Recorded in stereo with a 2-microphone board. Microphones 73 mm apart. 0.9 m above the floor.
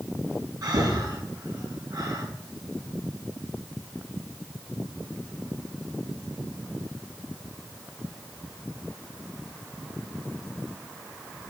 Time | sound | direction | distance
0.6 | breathing | 55° right (ahead or behind) | 7.5 m